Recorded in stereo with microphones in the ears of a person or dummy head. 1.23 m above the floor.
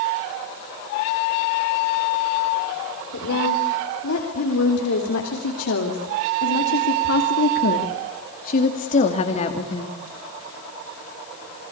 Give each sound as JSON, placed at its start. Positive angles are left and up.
{"t": 3.1, "sound": "a woman speaking", "side_deg": 90, "distance_m": 4.5}